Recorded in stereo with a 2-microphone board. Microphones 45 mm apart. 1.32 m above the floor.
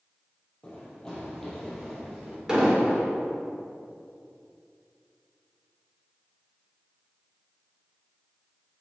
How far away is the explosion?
About 1.7 m.